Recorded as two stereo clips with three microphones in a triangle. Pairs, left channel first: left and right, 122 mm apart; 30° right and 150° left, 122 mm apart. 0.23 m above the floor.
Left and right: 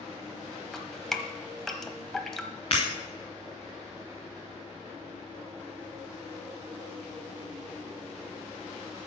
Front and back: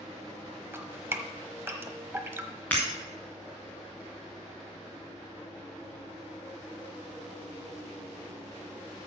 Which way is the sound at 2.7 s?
45° left.